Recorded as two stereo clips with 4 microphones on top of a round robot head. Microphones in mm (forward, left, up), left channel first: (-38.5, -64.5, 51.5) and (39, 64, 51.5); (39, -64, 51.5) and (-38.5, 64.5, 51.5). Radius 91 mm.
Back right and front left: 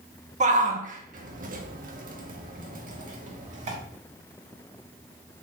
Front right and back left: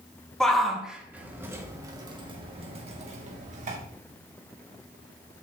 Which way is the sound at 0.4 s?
25° left.